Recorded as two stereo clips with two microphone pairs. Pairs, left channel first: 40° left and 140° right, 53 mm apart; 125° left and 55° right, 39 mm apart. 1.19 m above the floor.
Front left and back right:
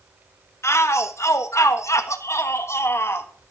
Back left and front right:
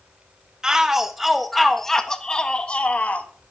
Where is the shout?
15° left, 1.7 m; by 3.3 s 75° left, 1.8 m.